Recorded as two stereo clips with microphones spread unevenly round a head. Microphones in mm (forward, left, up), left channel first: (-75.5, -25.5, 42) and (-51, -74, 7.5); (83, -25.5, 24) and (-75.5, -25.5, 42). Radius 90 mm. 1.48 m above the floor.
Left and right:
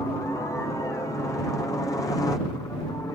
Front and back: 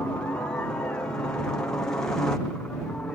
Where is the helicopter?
60° left; by 3.1 s 80° left.